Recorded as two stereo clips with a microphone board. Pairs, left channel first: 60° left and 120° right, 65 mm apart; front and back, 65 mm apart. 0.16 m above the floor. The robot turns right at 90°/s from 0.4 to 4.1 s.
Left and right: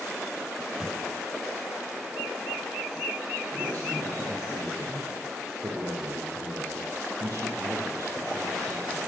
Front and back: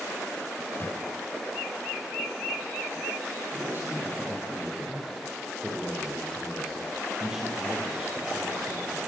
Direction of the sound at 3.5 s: 150° right.